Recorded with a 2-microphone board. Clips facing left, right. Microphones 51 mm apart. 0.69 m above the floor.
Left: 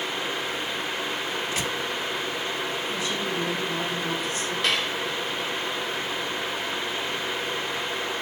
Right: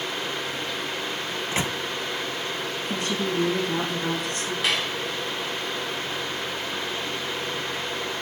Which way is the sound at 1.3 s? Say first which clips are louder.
Right 1 dB; 30° right (ahead or behind).